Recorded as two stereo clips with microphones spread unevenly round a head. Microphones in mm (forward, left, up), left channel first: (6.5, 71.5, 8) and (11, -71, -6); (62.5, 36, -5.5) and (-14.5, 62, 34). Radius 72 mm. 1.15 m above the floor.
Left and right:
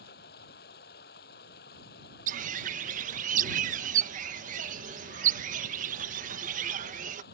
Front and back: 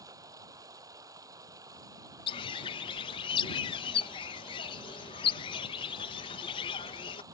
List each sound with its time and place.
0.0 s running water: 120° left
2.3 s a bird: 50° right